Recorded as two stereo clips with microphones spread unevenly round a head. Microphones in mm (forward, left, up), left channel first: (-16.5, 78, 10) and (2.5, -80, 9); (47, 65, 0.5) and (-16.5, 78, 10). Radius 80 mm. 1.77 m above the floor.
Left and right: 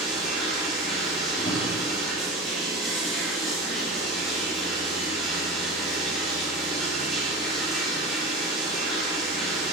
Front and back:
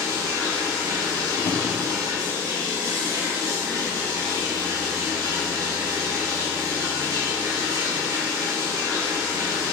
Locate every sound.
0.0 s running water: 175° right, 4 m
1.4 s a drawer: 35° left, 2.5 m